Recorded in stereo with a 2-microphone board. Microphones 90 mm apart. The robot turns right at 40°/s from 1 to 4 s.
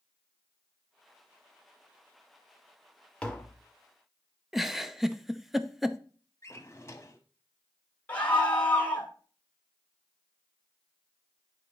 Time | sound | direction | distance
3.2 | tapping | 10° left (ahead or behind) | 1.1 m
4.5 | a giggle | 5° right (ahead or behind) | 0.6 m
6.4 | a drawer | 30° left (ahead or behind) | 1.2 m
8.1 | a scream | 15° left (ahead or behind) | 2.5 m